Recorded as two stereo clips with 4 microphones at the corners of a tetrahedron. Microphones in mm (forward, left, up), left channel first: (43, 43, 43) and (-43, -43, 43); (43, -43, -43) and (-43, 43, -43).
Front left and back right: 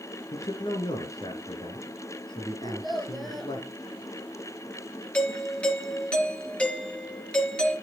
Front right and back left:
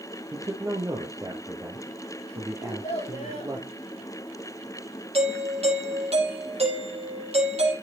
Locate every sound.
0.3 s a man speaking: 80° left, 2 m
2.6 s a child speaking: 45° right, 6 m
5.1 s a doorbell: 125° left, 4.5 m